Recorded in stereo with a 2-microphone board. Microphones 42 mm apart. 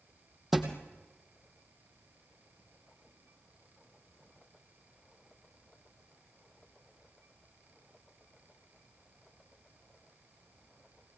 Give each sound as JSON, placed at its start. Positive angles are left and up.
{"t": 0.5, "sound": "a thud", "side_deg": -5, "distance_m": 2.5}